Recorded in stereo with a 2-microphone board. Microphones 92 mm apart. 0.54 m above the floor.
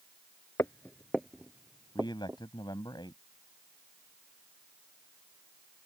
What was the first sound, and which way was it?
Footsteps, 35° left (ahead or behind).